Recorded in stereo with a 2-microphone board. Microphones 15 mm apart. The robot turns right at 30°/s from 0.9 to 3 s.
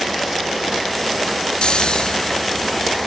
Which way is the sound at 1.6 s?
80° left.